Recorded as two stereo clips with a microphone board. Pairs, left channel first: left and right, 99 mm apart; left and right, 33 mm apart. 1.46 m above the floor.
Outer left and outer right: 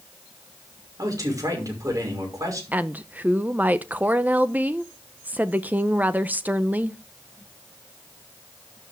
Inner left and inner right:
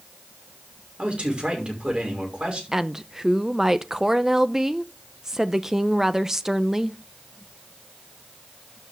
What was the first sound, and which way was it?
A man speaking, 35° right (ahead or behind).